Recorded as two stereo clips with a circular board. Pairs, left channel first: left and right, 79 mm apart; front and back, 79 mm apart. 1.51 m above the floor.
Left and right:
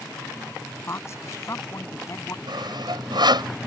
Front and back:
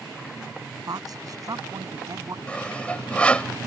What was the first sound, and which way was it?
A woman speaking, 145° left.